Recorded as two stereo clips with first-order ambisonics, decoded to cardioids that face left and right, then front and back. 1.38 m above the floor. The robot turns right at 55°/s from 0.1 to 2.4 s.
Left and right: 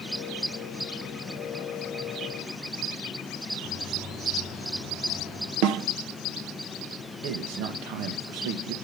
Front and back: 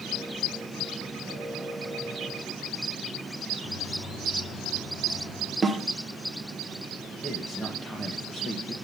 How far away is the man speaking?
About 1.4 m.